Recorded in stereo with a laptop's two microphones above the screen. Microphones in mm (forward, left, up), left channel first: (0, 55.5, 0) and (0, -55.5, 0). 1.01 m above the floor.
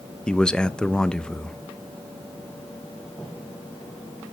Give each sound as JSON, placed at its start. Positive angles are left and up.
{"t": 0.3, "sound": "a man speaking", "side_deg": 10, "distance_m": 0.5}